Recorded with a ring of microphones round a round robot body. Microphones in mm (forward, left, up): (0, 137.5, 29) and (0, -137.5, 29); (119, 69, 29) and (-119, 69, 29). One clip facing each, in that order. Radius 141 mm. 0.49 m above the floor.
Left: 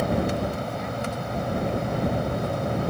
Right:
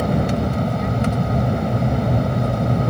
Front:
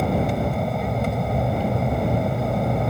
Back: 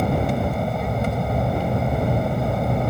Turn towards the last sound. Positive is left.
turn(degrees=-90)